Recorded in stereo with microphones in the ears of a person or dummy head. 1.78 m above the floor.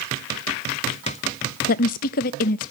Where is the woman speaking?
55° left (ahead or behind), 0.6 m.